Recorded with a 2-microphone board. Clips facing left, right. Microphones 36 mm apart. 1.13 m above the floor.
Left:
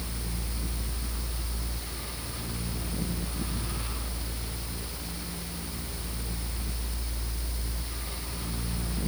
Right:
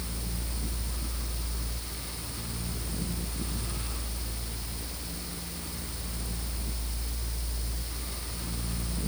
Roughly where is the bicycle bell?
No bicycle bell in this recording.